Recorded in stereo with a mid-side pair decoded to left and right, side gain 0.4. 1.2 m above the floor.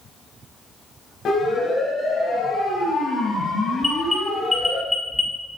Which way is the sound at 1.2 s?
60° left.